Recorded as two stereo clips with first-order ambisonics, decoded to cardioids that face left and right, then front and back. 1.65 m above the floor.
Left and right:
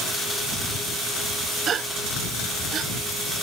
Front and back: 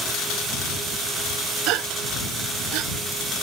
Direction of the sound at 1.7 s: 150° right.